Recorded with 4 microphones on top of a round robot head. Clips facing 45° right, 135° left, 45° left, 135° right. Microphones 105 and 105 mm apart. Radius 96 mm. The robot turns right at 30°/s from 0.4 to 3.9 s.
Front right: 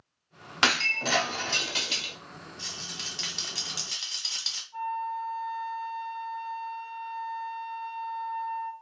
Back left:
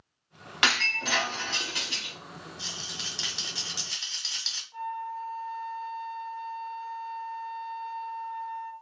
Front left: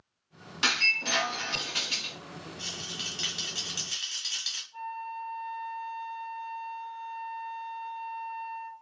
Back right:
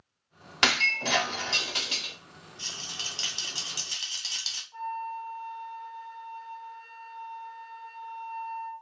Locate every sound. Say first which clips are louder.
0.6 s breaking glass: front right 1 dB, back right 4 dB; 105° right, 0.9 m; by 2.1 s 60° right, 0.9 m
2.6 s a rattle: back left 1 dB, front left 2 dB; 155° right, 1.2 m; by 4.6 s 115° right, 1.2 m
4.7 s a flute: front right 3 dB, back right 3 dB; straight behind, 0.5 m